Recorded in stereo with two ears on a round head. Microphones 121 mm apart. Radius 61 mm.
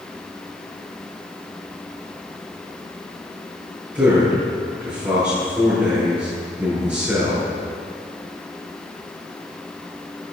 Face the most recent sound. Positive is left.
turn(degrees=-15)  # may be behind; listen again after turning